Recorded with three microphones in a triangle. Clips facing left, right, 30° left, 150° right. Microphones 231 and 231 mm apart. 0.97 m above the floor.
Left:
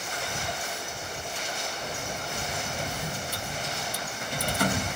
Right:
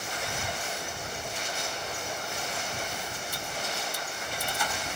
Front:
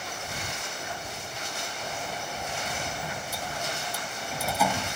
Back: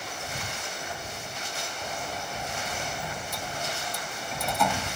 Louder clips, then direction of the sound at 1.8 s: Left 2 dB, even; 115° left.